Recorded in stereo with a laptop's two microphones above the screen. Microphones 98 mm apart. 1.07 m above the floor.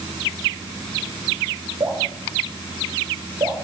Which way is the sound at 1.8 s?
55° right (ahead or behind).